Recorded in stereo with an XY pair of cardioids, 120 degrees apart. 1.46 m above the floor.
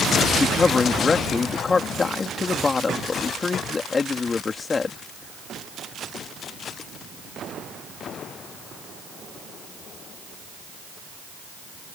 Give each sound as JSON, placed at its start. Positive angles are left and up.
{"t": 0.4, "sound": "a man speaking", "azimuth_deg": 30}